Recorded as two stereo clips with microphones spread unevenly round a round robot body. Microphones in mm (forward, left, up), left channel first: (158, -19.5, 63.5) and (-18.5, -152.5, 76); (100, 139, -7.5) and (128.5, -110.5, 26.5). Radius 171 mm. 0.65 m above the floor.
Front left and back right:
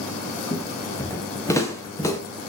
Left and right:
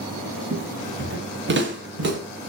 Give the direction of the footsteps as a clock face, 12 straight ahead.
1 o'clock.